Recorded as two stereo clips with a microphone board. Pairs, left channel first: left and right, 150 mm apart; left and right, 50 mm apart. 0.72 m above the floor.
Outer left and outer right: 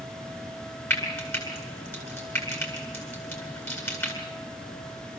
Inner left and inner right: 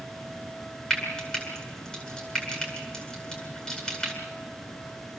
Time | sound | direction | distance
0.9 | frying | 15° left (ahead or behind) | 9 m